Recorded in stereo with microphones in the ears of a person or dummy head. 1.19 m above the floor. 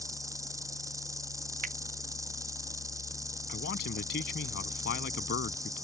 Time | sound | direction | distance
0.0 | an insect | 15° right (ahead or behind) | ?
1.6 | a finger snap | 45° right (ahead or behind) | ?
3.5 | a man speaking | 60° left (ahead or behind) | ?